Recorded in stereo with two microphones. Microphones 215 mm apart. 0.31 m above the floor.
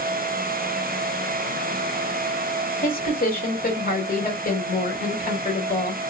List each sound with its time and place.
2.8 s a woman speaking: 40° left (ahead or behind), 1.4 m